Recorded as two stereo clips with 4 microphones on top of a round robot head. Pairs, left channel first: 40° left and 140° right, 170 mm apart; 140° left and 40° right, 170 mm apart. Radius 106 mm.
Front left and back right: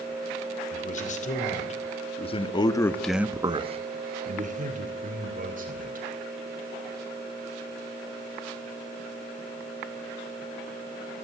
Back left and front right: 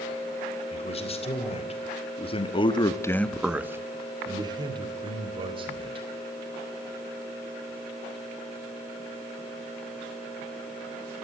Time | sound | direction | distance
0.7 | a man speaking | 85° left | 3.5 m